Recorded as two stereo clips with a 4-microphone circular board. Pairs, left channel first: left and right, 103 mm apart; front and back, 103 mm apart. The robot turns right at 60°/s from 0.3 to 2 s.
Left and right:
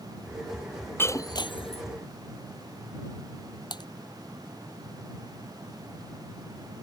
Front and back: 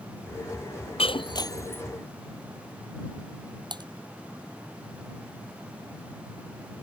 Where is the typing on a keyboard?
135° left.